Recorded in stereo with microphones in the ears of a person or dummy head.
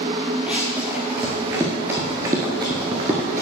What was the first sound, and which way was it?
Running footsteps, 5° right (ahead or behind).